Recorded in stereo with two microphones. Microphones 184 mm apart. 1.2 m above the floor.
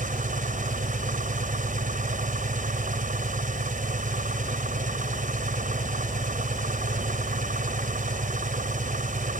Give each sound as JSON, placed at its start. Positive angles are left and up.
{"t": 0.0, "sound": "an engine running", "side_deg": -45}